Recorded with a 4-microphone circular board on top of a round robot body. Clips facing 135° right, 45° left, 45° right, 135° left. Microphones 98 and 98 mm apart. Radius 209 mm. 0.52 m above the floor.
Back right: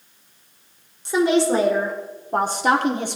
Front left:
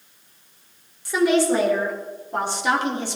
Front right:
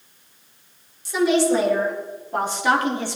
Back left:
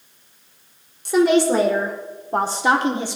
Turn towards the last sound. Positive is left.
turn(degrees=-155)